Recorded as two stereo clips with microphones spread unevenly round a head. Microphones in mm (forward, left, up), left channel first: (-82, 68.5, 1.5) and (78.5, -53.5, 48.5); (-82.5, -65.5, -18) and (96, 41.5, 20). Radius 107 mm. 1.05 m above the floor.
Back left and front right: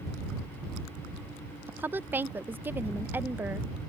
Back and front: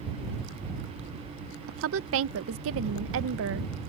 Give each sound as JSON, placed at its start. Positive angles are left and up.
{"t": 1.7, "sound": "a woman speaking", "azimuth_deg": 50}